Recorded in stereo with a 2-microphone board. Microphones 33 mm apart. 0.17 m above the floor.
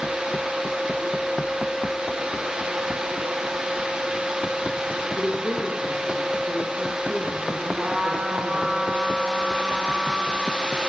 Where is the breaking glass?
No breaking glass in this recording.